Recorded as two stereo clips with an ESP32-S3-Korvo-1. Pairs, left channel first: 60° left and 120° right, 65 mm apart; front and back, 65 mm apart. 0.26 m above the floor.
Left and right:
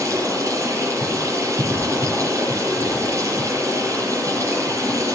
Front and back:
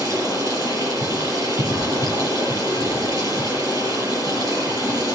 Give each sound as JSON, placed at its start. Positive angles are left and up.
{"t": 0.0, "sound": "running water", "azimuth_deg": -160, "distance_m": 5.5}